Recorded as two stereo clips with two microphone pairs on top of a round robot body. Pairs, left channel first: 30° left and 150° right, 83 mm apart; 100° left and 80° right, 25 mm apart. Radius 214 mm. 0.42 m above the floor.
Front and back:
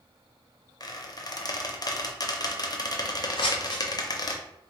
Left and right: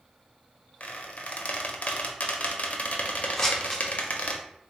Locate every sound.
0.8 s a squeak: 65° left, 0.7 m
3.4 s scissors: 20° left, 0.6 m